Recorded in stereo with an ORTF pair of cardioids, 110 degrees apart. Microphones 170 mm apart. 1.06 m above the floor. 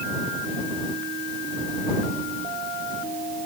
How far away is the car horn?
I don't hear a car horn.